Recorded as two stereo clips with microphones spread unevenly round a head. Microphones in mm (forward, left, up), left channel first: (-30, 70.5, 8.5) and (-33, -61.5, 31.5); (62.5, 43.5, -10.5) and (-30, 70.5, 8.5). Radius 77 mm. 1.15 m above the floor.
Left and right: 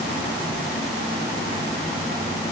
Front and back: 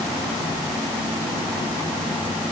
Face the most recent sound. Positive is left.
No sound to turn to.